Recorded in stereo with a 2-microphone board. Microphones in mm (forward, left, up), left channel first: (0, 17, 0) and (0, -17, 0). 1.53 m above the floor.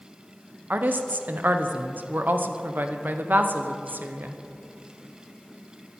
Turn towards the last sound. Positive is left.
turn(degrees=-70)  # may be behind; listen again after turning